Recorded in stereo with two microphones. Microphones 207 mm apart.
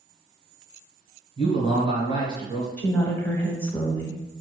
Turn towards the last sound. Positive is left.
turn(degrees=10)  # may be behind; listen again after turning